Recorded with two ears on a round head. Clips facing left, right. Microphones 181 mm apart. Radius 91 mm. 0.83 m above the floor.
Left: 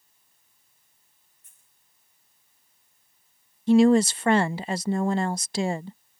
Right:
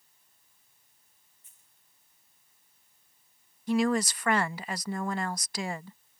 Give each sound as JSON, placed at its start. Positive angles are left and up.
{"t": 1.4, "sound": "a dropped coin", "side_deg": 45}
{"t": 3.7, "sound": "a woman speaking", "side_deg": 25}